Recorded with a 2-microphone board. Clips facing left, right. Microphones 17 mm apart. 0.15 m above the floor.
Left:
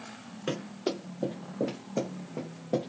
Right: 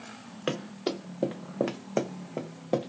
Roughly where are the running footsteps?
Right.